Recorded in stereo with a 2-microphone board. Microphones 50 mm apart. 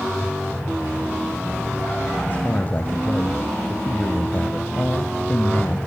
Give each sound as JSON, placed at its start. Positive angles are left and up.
{"t": 2.3, "sound": "a man speaking", "side_deg": 30, "distance_m": 1.3}